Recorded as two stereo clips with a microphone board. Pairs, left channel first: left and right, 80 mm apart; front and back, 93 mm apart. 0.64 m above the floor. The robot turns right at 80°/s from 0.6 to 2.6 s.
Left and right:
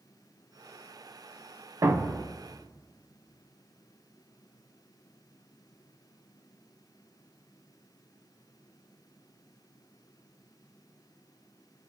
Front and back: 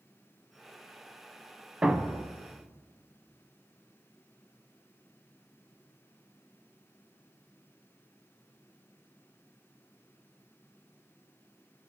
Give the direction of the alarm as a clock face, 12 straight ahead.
I don't hear an alarm.